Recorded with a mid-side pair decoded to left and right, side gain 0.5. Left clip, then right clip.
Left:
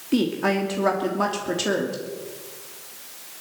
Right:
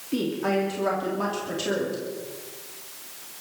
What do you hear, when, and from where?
0.1 s a woman speaking: 40° left, 3 m